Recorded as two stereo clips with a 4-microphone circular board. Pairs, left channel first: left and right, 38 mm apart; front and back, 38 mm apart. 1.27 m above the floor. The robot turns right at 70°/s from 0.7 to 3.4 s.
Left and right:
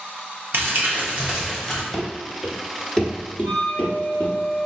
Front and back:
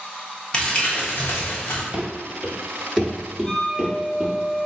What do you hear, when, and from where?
0.5 s crumpling: 65° right, 1.3 m; by 1.8 s 15° left, 1.3 m
1.9 s running footsteps: 170° left, 1.2 m; by 4.3 s 105° left, 2 m
3.4 s a flute: 60° left, 1.5 m